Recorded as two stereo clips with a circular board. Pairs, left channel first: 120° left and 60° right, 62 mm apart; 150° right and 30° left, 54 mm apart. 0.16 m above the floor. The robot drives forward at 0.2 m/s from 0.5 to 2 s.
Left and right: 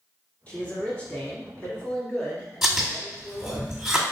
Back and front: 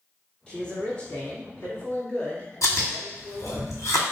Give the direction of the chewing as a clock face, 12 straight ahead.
5 o'clock.